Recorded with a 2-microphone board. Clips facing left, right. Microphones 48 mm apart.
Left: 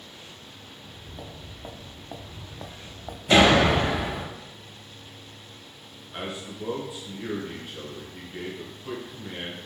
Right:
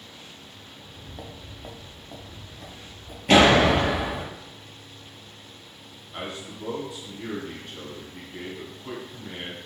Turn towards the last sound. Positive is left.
turn(degrees=10)  # may be behind; listen again after turning